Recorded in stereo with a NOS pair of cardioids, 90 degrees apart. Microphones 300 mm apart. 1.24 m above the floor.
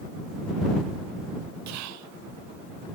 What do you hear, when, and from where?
1.7 s whispering: 70° right